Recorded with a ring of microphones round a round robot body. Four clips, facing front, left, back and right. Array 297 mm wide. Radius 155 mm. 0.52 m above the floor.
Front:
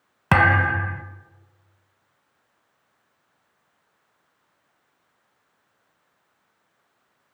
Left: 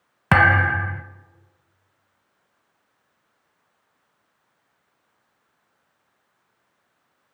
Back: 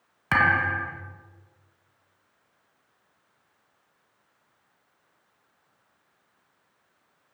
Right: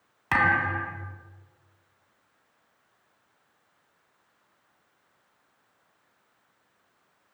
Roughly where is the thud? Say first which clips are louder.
Left 7 dB, front 4 dB; ahead left.